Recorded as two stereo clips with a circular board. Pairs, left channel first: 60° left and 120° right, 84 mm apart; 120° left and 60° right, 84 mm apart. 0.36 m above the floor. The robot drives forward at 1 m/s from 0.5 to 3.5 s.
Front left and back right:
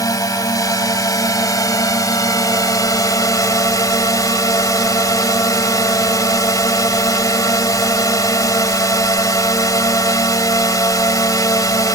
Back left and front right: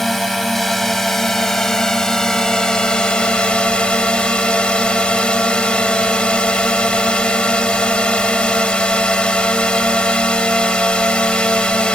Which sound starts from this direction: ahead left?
A drone, at 0.0 s.